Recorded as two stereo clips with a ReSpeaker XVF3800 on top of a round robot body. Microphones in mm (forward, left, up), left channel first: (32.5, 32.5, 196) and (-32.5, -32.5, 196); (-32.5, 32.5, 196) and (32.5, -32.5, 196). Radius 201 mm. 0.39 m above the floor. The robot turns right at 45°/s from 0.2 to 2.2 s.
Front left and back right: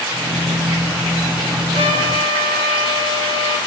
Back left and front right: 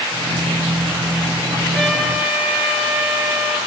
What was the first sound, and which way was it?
A trumpet, 140° right.